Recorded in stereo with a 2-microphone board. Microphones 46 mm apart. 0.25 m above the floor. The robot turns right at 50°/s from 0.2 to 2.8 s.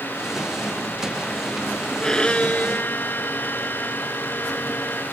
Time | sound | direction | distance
2.0 | a violin | 15° left | ?